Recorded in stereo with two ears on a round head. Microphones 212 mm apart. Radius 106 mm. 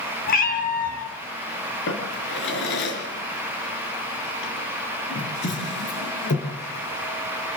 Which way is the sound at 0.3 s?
35° left (ahead or behind).